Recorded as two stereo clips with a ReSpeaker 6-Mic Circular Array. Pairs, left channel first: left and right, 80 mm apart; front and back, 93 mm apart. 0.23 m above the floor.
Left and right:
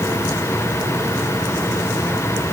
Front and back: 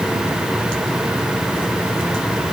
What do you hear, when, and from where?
Only background noise.